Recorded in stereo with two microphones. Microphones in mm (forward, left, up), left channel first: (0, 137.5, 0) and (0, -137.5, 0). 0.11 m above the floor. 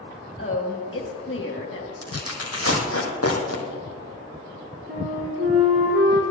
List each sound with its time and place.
0.4 s a woman speaking: 50° left (ahead or behind), 3 m
2.0 s tearing paper: 60° left (ahead or behind), 2 m
4.9 s a flute: 55° right (ahead or behind), 3.5 m